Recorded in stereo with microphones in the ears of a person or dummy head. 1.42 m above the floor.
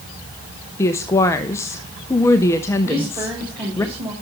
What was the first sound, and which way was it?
A woman speaking, 15° left (ahead or behind).